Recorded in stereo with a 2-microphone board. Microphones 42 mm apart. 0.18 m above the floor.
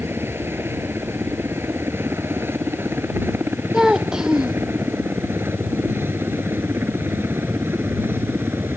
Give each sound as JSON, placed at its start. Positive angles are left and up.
{"t": 0.0, "sound": "a helicopter", "side_deg": -65}
{"t": 3.7, "sound": "a child speaking", "side_deg": -15}